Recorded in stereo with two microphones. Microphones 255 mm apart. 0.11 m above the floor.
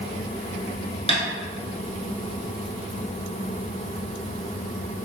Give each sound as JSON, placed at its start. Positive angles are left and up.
{"t": 1.1, "sound": "tapping", "side_deg": 25, "distance_m": 0.8}